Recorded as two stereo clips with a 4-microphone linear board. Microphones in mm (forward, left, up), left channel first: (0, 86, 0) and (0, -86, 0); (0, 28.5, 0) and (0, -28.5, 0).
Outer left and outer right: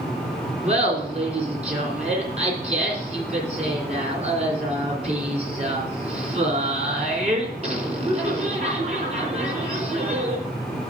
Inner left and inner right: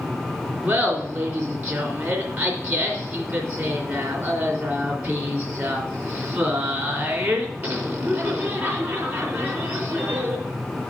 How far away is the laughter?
About 3 m.